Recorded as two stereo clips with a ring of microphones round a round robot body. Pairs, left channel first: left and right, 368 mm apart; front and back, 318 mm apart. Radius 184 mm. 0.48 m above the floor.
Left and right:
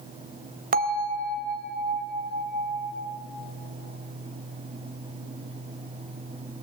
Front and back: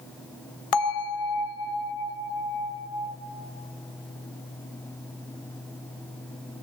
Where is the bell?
25° right, 1.7 m.